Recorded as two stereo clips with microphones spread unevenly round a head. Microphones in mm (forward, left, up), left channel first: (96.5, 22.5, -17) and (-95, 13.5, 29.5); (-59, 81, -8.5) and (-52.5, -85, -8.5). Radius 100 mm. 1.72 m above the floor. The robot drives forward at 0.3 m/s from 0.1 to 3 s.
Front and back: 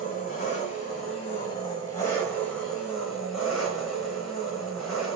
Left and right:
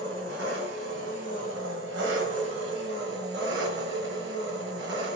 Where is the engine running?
55° right, 1.5 m; by 5.2 s 90° right, 1.2 m.